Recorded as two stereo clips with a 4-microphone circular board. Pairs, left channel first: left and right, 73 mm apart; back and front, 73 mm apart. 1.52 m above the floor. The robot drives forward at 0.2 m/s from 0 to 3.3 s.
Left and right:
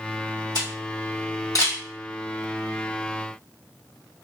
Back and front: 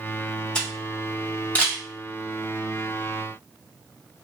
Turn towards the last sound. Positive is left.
turn(degrees=125)